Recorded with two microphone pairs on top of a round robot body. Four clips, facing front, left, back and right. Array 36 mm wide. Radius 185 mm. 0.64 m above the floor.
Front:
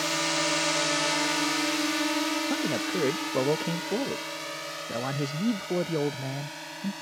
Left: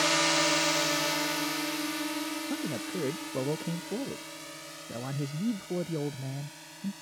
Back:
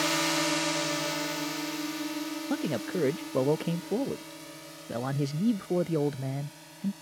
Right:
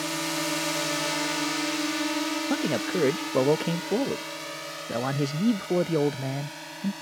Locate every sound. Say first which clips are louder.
0.0 s a drone: left 4 dB, even; 95° left; by 7.0 s 35° right
2.5 s a man speaking: right 8 dB, front 3 dB; 70° right